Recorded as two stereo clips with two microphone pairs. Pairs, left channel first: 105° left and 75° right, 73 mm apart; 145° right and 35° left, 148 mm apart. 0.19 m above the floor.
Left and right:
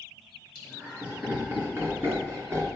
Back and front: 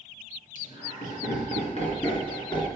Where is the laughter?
140° right, 3.5 m; by 2.7 s 100° right, 2 m.